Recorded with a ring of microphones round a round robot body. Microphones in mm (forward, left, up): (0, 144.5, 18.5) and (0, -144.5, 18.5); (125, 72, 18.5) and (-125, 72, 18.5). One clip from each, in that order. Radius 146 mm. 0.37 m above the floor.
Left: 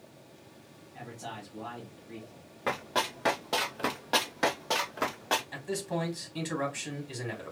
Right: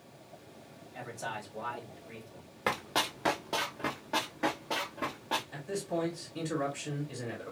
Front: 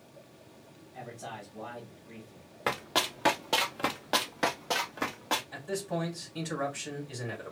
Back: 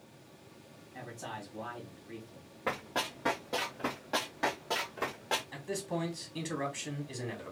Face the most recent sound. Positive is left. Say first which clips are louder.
# left 1 dB, front 3 dB
turn(degrees=110)